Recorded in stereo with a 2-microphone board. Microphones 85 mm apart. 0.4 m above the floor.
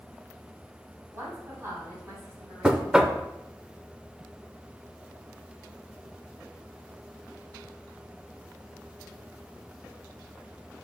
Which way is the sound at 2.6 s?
10° right (ahead or behind).